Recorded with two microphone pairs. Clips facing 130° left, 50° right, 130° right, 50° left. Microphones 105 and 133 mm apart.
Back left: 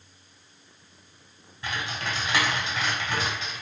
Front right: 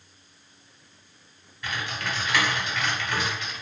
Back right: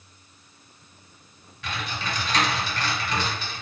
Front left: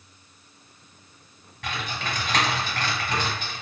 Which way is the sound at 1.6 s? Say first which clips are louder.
Even, even; 70° left.